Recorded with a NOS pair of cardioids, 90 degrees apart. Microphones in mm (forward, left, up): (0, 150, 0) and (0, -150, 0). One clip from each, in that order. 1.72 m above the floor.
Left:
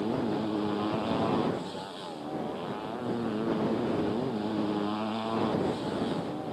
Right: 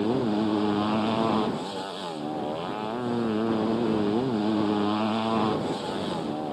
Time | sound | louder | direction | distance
0.0 | a motorcycle | right 5 dB | 45° right | ?